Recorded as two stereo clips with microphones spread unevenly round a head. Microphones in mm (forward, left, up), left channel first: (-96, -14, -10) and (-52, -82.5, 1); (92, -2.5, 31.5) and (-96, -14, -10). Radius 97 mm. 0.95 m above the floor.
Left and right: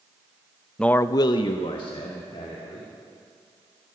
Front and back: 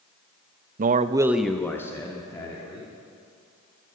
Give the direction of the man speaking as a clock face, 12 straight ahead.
5 o'clock.